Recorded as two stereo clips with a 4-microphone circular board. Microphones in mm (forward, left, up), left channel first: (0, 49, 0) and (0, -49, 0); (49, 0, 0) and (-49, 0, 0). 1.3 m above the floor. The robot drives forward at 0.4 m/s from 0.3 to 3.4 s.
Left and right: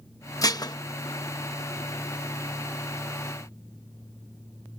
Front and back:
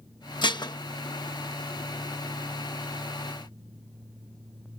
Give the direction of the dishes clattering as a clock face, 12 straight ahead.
11 o'clock.